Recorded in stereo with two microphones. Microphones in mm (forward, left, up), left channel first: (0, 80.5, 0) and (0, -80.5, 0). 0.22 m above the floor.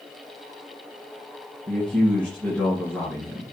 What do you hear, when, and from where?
1.7 s a man speaking: 5° left (ahead or behind), 3.5 m